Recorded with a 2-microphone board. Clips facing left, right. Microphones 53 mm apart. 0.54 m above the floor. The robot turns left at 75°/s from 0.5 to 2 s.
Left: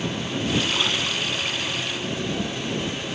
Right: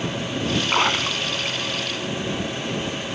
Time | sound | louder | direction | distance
0.7 | a splash | right 4 dB | 55° right (ahead or behind) | ?